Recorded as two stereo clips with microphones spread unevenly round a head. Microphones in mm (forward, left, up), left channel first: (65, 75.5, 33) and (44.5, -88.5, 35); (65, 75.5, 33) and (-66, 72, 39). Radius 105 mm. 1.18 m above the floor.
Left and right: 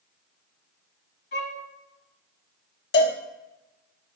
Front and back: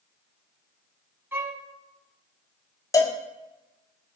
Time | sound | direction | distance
1.3 | a violin | 115° left | 1.5 m
2.9 | a cowbell | 70° left | 1.2 m